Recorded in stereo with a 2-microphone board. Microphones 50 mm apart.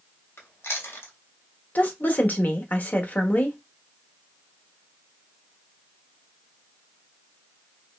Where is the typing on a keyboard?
I don't hear typing on a keyboard.